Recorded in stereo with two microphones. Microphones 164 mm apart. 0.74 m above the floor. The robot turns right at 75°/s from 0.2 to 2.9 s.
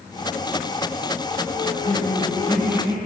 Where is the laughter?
110° left, 10 m; by 3.0 s 155° right, 10 m.